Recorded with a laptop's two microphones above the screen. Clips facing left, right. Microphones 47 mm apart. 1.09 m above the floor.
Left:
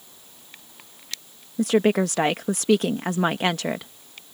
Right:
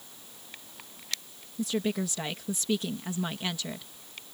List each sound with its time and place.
1.6 s a woman speaking: 70° left (ahead or behind)